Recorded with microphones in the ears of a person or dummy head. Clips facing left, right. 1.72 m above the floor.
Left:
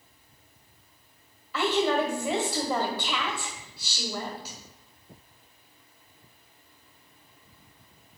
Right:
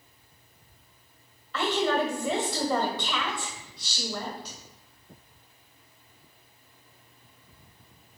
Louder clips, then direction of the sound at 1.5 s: Left 1 dB; 5° left (ahead or behind).